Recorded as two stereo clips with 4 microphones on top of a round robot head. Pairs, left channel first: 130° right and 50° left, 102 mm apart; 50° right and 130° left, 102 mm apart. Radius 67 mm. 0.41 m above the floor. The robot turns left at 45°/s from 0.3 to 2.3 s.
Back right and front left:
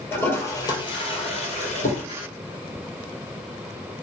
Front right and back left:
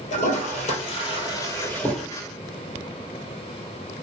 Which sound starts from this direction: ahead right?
A toilet flushing, at 0.1 s.